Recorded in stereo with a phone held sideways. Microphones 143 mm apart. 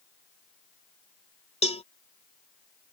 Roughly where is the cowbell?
Left.